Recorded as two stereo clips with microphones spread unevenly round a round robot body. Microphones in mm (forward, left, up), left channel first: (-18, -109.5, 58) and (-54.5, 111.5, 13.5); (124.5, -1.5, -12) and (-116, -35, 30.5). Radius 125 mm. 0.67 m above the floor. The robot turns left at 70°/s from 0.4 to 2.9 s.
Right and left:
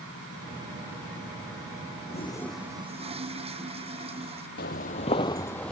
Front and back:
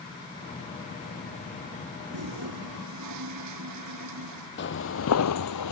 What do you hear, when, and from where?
2.1 s a toilet flushing: 140° right; by 4.5 s 165° left
4.6 s footsteps: 40° right; by 5.7 s straight ahead